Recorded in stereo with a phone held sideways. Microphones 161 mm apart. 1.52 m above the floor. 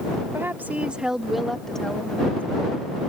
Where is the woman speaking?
15° right (ahead or behind); by 3.1 s 10° left (ahead or behind).